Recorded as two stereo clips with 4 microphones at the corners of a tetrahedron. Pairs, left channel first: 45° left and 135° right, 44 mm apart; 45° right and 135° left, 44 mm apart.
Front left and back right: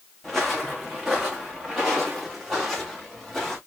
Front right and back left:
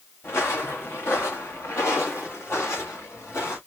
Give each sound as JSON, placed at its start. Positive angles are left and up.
{"t": 0.2, "sound": "footsteps", "azimuth_deg": -45, "distance_m": 1.2}